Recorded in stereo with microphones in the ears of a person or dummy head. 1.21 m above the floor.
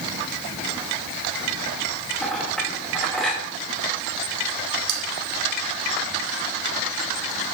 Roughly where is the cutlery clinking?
Right.